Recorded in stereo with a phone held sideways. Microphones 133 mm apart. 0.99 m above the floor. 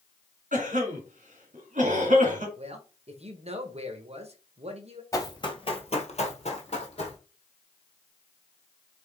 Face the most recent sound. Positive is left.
turn(degrees=50)  # may be behind; listen again after turning